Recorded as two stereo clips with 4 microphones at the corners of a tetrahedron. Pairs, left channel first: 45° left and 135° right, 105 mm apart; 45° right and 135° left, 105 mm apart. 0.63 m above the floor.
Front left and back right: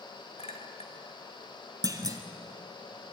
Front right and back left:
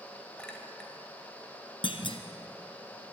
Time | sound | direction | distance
0.4 | a clink | 35° left | 2 m
1.8 | a clunk | 80° right | 1.7 m